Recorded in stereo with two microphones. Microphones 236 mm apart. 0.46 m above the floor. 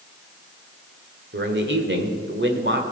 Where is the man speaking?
50° right (ahead or behind), 1.6 m.